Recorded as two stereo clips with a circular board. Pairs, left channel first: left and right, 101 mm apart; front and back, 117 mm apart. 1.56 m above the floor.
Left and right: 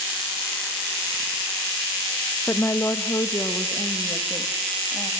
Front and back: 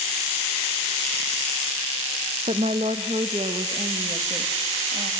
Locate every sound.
2.5 s a woman speaking: 155° left, 0.8 m; by 5.1 s 145° left, 3 m